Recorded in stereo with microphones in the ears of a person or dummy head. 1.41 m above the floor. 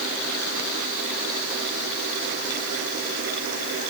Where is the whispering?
No whispering in this recording.